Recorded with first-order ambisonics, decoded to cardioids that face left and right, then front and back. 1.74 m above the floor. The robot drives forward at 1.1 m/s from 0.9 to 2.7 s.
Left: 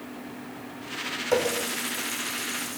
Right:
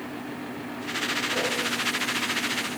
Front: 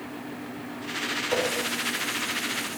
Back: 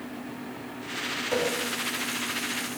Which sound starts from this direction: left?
A running tap, at 1.3 s.